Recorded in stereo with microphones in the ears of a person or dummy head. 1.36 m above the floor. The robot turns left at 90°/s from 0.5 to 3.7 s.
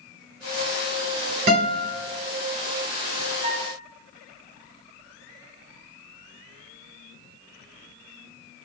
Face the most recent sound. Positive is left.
turn(degrees=-25)  # may be behind; listen again after turning